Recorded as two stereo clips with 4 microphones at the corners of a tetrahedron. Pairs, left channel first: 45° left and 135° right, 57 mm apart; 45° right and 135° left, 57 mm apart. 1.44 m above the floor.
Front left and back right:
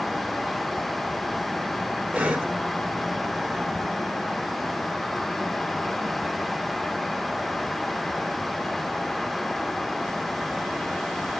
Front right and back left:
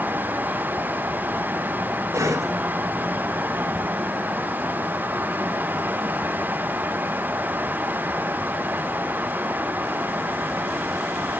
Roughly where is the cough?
Behind left.